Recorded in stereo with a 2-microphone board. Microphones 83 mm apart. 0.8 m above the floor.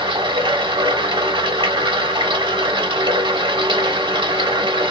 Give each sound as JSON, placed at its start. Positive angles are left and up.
{"t": 0.0, "sound": "running water", "side_deg": -80, "distance_m": 1.1}